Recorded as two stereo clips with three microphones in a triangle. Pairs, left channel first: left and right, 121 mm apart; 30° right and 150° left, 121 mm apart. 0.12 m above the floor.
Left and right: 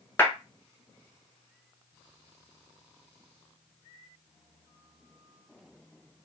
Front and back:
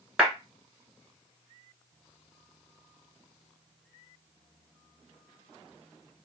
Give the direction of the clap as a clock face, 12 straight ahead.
9 o'clock.